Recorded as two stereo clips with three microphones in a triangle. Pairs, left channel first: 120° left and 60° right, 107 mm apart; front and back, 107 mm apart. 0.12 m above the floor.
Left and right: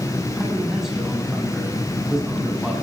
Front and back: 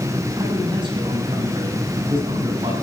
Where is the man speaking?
145° right, 8 m.